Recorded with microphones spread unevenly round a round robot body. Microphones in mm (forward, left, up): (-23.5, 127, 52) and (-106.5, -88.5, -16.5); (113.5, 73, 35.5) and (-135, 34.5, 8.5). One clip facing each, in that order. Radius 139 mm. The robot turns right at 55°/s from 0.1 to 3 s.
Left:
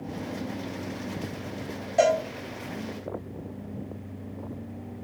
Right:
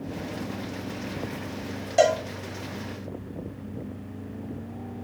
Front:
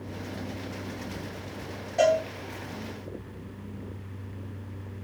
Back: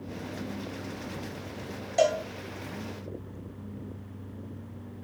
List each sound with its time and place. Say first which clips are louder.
2.0 s a cowbell: right 1 dB, front 2 dB; 135° right, 1.0 m; by 2.2 s 125° right, 1.0 m